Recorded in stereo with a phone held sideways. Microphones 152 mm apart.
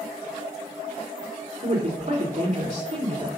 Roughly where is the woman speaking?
Right.